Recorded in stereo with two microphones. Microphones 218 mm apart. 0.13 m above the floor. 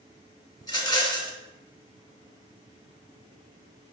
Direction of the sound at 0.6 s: 20° left (ahead or behind).